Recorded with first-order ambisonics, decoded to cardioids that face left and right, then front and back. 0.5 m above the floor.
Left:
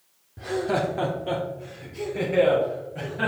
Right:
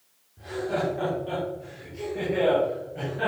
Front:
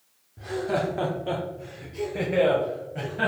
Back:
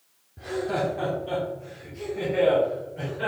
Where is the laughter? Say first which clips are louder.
Left 3 dB, even; 100° left, 1.0 m; by 3.3 s 5° left, 2.5 m.